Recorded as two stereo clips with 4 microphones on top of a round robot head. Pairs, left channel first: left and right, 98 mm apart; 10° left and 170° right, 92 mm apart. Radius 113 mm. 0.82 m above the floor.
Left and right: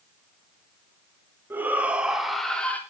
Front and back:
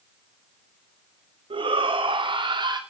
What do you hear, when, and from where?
1.5 s a shout: 160° right, 2.5 m; by 2.8 s 160° left, 1.7 m